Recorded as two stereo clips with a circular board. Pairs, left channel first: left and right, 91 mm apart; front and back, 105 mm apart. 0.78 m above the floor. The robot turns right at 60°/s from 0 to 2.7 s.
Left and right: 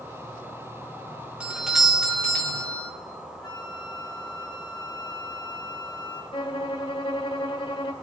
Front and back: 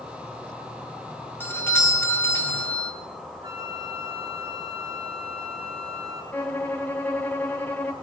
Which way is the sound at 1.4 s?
30° right.